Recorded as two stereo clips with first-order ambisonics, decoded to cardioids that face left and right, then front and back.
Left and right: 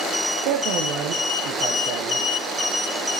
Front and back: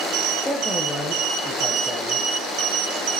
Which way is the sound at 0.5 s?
85° right.